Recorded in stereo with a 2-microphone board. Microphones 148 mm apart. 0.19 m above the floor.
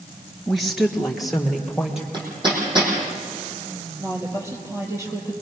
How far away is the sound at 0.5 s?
About 2.5 m.